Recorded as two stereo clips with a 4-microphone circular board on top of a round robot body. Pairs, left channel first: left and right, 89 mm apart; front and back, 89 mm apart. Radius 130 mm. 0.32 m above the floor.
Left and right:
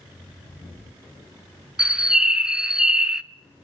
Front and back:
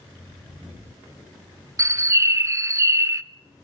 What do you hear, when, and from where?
1.8 s a bird: 165° right, 0.8 m